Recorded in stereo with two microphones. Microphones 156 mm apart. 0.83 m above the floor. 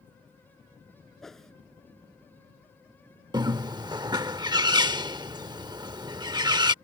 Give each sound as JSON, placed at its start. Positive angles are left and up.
{"t": 1.2, "sound": "a whoosh", "side_deg": 0}
{"t": 3.3, "sound": "a bird", "side_deg": -25}